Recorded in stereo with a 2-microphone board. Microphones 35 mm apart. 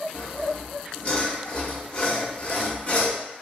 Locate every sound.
0.1 s sawing: 40° left (ahead or behind), 0.9 m